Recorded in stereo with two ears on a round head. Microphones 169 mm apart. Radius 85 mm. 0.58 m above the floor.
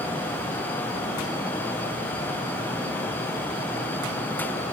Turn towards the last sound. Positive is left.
No sound to turn to.